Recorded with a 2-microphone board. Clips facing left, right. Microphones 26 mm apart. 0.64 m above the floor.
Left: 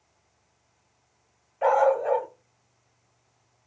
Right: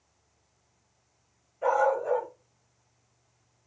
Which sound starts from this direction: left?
A dog barking, at 1.6 s.